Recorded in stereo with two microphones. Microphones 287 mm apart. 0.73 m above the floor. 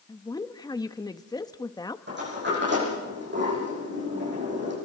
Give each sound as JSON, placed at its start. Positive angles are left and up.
{"t": 0.1, "sound": "a woman speaking", "side_deg": 15, "distance_m": 0.8}
{"t": 2.1, "sound": "a sliding door", "side_deg": -40, "distance_m": 9.5}